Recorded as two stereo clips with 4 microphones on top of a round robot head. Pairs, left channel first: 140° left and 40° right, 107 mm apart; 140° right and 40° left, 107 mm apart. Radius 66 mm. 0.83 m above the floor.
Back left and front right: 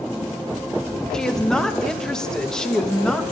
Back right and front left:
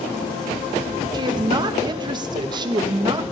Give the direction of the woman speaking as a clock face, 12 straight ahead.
10 o'clock.